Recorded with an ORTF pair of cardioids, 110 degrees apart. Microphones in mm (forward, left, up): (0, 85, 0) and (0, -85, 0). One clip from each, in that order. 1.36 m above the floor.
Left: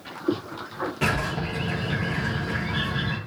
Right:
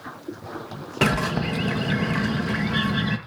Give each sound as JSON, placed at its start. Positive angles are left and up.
{"t": 1.0, "sound": "a bird", "azimuth_deg": -60, "distance_m": 1.2}